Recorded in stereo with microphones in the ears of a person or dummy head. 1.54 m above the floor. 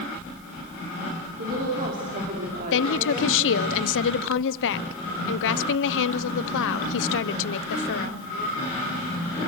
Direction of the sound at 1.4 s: 50° right (ahead or behind).